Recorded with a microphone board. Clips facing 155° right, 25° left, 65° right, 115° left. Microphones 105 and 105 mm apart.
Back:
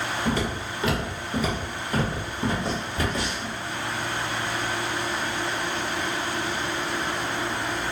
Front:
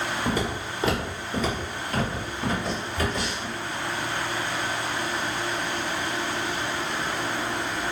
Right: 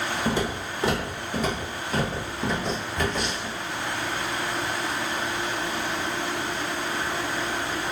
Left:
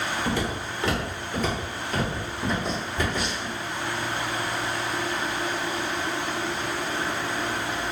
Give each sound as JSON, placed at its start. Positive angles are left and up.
{"t": 0.2, "sound": "footsteps", "azimuth_deg": -35, "distance_m": 1.5}